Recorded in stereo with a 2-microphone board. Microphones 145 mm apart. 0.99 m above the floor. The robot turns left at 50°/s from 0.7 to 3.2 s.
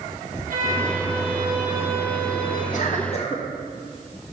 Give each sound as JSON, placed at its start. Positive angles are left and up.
{"t": 0.5, "sound": "a violin", "azimuth_deg": -105, "distance_m": 3.0}
{"t": 2.7, "sound": "a cough", "side_deg": 65, "distance_m": 1.5}